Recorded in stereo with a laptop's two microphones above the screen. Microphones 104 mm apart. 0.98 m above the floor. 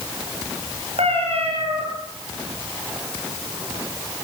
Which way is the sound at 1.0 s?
70° right (ahead or behind).